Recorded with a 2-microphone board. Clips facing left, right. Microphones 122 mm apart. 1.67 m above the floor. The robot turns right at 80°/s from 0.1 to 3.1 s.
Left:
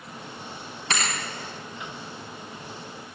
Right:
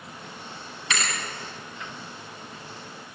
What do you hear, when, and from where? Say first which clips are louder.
0.9 s a thud: left 1 dB; 40° left (ahead or behind), 5.5 m; by 1.2 s 60° left (ahead or behind), 5.5 m